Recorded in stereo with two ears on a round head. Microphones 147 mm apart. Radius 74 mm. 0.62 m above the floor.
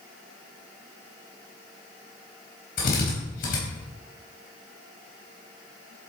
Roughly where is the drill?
Left.